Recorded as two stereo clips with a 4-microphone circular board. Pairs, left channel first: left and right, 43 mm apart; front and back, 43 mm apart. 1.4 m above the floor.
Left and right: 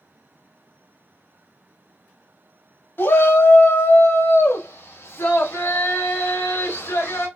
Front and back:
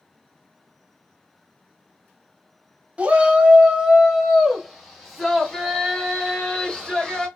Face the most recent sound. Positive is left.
turn(degrees=80)